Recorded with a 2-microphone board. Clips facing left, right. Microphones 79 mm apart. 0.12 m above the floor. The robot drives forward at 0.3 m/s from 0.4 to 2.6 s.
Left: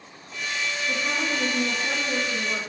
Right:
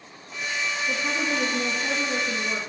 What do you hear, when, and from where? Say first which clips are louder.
0.9 s a woman speaking: even; 30° right (ahead or behind), 3.5 m; by 2.6 s 35° right (ahead or behind), 3 m